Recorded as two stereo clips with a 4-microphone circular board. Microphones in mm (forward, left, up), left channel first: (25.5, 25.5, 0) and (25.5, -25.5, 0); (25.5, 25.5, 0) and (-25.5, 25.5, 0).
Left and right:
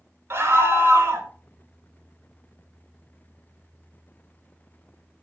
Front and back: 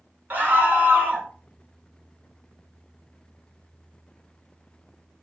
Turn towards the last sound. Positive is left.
turn(degrees=-125)